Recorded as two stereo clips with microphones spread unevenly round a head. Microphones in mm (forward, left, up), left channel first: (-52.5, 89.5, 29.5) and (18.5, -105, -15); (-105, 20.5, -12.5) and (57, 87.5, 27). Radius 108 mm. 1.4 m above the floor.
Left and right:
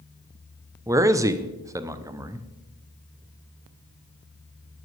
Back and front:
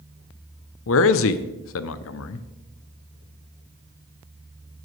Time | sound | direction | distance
0.9 | a man speaking | 145° right | 0.5 m